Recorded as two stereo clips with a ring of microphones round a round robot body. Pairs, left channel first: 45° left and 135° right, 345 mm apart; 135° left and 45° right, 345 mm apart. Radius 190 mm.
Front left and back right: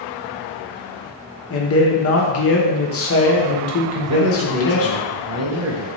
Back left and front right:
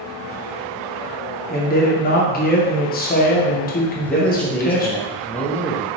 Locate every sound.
1.5 s a man speaking: 80° left, 0.8 m
4.0 s a man speaking: 140° right, 0.8 m